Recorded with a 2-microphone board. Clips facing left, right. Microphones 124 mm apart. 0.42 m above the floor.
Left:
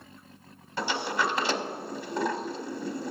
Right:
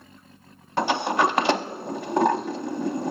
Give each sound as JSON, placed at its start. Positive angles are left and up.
{"t": 0.8, "sound": "a sliding door", "side_deg": -65, "distance_m": 0.5}